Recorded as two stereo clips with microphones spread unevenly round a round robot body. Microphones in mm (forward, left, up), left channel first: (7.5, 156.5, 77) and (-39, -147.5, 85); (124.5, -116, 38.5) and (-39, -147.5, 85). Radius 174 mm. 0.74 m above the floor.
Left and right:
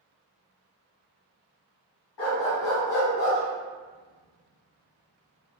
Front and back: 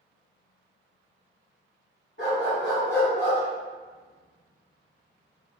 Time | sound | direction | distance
2.2 | a dog barking | 85° left | 1.2 m